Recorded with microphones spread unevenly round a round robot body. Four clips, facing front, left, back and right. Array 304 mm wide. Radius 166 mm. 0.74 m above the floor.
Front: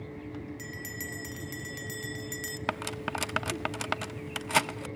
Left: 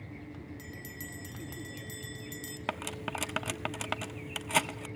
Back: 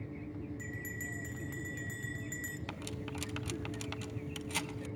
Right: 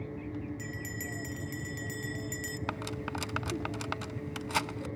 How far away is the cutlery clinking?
About 0.7 m.